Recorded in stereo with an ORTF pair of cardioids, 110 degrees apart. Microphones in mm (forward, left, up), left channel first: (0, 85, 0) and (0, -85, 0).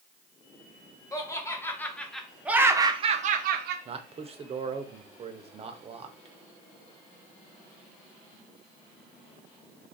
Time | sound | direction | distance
1.1 | laughter | 20° left | 1.3 m
3.9 | a man speaking | 35° right | 0.7 m